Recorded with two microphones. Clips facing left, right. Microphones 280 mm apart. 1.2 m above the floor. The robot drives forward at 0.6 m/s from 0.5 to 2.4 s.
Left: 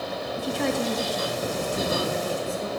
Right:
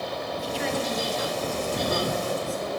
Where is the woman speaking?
55° left (ahead or behind), 1.1 m; by 2.7 s 25° left (ahead or behind), 2 m.